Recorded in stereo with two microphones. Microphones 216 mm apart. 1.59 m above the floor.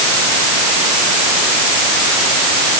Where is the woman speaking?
I don't hear a woman speaking.